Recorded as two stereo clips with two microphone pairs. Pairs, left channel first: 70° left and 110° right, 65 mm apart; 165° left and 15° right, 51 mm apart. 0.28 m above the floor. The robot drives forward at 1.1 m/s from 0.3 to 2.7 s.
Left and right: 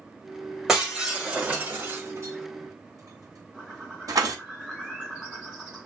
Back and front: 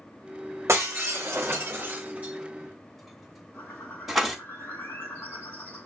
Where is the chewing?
I don't hear chewing.